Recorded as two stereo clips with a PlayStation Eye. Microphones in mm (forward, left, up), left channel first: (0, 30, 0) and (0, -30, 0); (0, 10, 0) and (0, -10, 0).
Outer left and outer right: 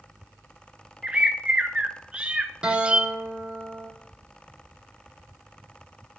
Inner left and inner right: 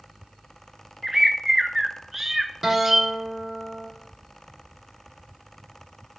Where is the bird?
20° right (ahead or behind), 0.7 m.